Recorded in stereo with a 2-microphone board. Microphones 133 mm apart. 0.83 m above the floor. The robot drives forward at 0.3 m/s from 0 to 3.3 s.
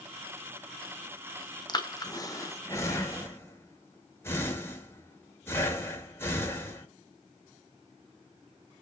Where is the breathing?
30° left (ahead or behind), 0.6 m; by 6.9 s 20° left (ahead or behind), 0.9 m.